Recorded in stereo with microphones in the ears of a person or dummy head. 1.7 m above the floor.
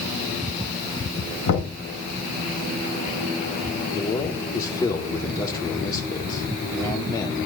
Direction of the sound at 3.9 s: 20° left (ahead or behind).